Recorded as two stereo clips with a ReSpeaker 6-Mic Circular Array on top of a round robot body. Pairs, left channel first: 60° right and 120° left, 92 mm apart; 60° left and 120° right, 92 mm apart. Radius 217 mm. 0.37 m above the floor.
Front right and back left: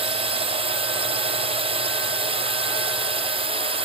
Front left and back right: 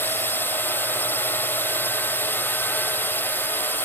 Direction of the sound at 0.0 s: 125° left.